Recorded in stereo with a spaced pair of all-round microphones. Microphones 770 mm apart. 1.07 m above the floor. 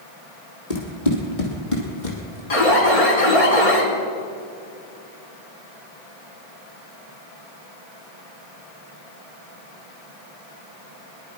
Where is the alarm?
45° left (ahead or behind), 3 m.